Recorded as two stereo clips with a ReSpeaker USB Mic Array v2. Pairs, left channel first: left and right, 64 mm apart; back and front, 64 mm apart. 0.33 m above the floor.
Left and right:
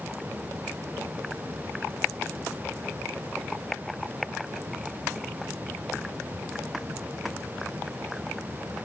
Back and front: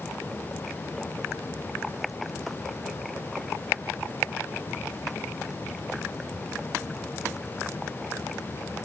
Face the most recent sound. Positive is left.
No sound to turn to.